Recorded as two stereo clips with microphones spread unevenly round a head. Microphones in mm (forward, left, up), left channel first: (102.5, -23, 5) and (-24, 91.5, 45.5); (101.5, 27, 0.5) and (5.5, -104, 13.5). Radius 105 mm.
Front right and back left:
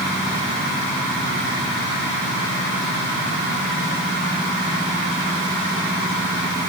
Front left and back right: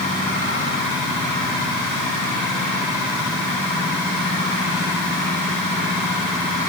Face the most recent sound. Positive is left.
No sound to turn to.